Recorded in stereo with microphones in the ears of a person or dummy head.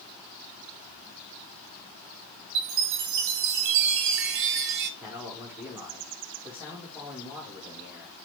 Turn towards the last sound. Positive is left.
turn(degrees=-10)  # may be behind; listen again after turning